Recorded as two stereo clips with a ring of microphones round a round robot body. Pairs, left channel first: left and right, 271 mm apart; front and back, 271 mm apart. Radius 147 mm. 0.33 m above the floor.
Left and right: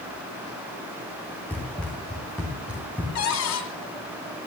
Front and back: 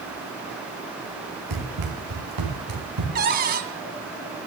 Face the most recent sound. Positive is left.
turn(degrees=125)